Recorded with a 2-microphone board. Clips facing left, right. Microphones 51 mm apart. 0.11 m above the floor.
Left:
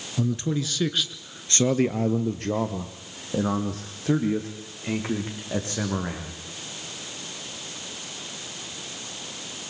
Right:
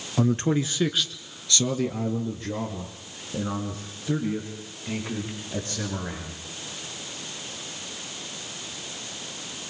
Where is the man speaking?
50° right (ahead or behind), 1.5 m; by 6.3 s 75° left (ahead or behind), 8 m.